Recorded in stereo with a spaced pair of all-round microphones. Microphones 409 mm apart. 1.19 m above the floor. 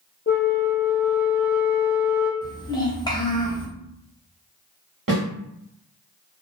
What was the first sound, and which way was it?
A flute, 25° left (ahead or behind).